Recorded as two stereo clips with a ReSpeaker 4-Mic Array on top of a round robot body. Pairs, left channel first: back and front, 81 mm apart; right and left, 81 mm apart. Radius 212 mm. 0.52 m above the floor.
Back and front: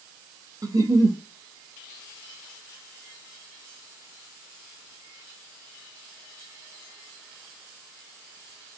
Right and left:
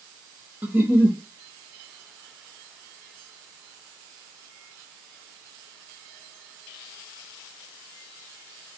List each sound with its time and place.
0.6 s a giggle: 30° left, 1.0 m